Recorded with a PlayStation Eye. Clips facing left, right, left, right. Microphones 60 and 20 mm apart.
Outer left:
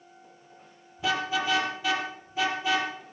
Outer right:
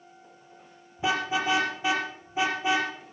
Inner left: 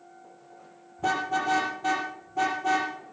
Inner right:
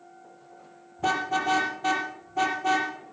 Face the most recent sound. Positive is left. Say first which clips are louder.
# outer right 1 dB, inner right 1 dB
turn(degrees=-25)  # may be behind; listen again after turning